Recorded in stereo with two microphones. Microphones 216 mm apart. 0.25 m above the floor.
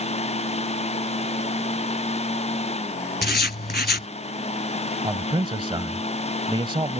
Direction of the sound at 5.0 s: 25° right (ahead or behind).